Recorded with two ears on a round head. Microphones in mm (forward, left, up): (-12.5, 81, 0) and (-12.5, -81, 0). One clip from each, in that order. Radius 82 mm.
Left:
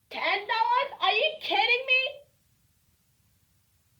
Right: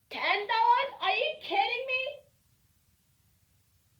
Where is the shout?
5° right (ahead or behind), 2 m; by 2.2 s 60° left (ahead or behind), 1.5 m.